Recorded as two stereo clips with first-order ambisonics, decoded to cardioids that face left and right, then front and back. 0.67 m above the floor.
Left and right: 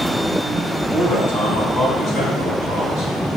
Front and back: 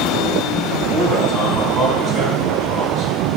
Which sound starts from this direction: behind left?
A man speaking, at 0.9 s.